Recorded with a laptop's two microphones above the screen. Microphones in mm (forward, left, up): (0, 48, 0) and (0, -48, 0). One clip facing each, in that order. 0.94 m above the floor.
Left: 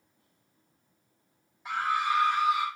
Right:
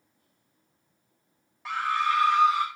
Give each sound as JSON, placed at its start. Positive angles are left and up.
{"t": 1.6, "sound": "a scream", "side_deg": -80, "distance_m": 3.5}